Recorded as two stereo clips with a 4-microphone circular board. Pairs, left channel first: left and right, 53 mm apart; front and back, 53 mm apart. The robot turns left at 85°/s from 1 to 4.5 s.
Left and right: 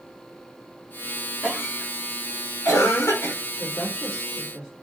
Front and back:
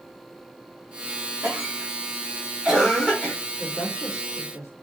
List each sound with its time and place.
1.4 s a cough: 150° right, 5.5 m; by 3.4 s 45° left, 5.5 m
3.6 s a woman speaking: 55° left, 3.5 m; by 4.7 s 25° right, 3.5 m